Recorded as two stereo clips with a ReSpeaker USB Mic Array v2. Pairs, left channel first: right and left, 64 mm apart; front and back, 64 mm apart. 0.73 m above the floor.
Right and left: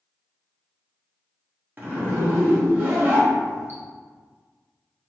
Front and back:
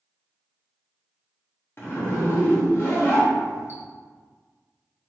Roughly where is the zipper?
Ahead left.